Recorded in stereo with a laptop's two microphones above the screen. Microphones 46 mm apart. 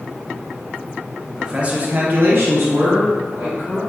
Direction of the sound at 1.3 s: 15° right (ahead or behind).